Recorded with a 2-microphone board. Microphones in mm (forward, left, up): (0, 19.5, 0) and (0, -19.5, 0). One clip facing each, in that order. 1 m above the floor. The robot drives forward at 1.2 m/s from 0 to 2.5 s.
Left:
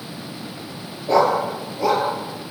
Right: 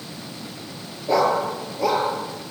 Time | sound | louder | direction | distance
1.1 | a dog barking | left 2 dB | centre (ahead or behind) | 6 m